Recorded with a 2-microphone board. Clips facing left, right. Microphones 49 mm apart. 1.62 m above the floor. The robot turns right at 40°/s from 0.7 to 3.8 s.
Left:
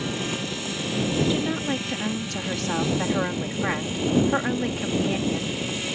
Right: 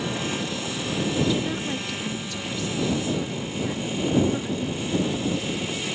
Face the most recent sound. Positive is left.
turn(degrees=115)